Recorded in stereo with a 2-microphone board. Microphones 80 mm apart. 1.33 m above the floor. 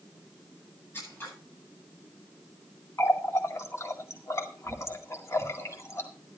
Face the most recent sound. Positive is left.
turn(degrees=35)  # may be behind; listen again after turning